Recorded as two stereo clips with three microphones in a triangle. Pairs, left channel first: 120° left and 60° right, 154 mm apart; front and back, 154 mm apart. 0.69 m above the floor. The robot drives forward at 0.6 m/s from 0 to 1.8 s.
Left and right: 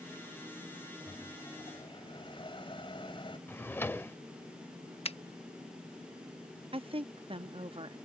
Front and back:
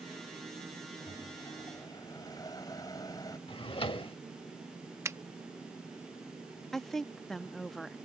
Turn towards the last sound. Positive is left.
turn(degrees=-85)